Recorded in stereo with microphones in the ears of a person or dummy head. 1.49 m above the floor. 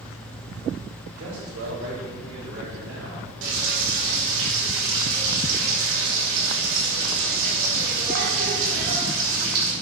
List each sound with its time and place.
1.2 s a man speaking: 75° right (ahead or behind), 2.0 m; by 3.3 s 65° right (ahead or behind), 3.5 m
3.4 s frying: 80° right, 2.5 m